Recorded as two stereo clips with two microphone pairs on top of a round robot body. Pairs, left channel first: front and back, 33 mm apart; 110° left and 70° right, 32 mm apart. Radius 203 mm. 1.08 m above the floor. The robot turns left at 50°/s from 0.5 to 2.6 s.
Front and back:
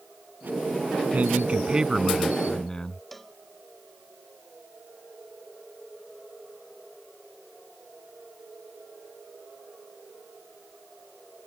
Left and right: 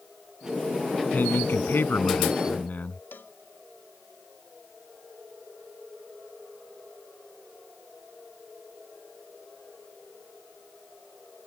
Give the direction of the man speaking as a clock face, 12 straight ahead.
7 o'clock.